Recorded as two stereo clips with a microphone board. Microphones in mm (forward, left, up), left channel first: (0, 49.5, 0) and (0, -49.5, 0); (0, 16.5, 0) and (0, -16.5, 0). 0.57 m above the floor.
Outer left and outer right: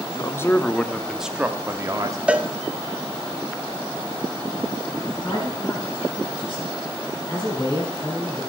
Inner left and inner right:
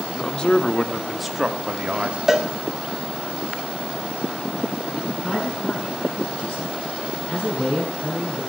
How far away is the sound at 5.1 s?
About 5.5 m.